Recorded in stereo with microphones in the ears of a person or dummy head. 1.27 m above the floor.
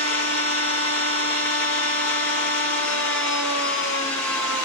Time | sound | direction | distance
0.0 | a machine running | 65° left (ahead or behind) | 1.7 m